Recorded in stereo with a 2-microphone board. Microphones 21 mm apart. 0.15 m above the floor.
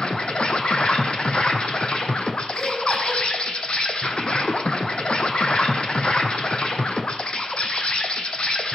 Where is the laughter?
15° left (ahead or behind), 1.8 m.